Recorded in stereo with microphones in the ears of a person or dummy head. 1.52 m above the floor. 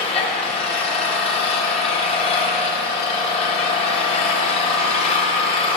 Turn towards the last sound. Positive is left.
turn(degrees=30)  # may be behind; listen again after turning